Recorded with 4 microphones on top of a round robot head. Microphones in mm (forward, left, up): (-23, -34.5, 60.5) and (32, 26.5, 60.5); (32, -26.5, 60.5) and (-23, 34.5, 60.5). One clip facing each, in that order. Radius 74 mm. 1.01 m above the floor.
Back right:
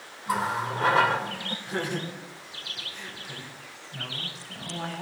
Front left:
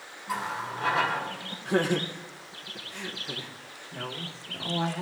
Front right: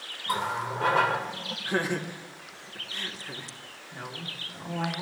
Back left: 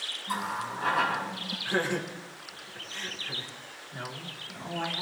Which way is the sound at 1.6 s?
25° left.